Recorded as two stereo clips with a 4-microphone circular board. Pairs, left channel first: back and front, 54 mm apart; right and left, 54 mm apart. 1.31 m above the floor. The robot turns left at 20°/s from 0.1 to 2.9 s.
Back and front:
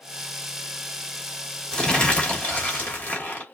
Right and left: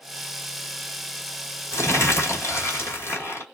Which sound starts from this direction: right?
Crumpling, at 1.7 s.